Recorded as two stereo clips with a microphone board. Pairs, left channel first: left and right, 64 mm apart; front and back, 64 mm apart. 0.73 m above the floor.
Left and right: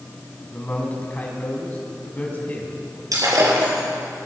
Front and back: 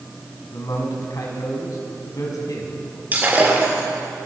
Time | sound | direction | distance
0.5 | a man speaking | 25° left | 5 m
3.1 | breaking glass | 120° right | 5.5 m